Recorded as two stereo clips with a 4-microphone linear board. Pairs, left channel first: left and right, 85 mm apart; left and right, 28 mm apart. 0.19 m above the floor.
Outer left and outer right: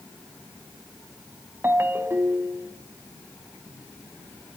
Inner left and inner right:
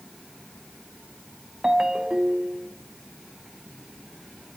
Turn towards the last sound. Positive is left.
turn(degrees=-30)  # may be behind; listen again after turning